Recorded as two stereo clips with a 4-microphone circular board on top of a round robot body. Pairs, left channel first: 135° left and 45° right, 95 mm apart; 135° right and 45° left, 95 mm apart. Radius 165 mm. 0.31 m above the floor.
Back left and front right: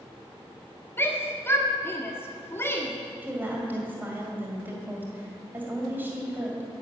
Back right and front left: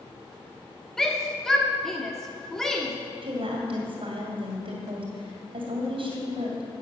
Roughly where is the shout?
Behind left.